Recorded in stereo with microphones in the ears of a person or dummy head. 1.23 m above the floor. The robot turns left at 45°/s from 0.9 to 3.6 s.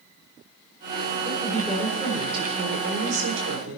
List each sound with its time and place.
1.2 s a woman speaking: 20° left, 3.5 m; by 3.8 s 85° right, 3.5 m